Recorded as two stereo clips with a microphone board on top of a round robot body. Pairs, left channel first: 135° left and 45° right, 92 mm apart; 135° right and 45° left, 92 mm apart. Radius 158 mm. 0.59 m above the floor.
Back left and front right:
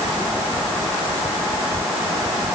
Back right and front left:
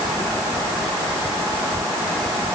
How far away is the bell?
No bell in this recording.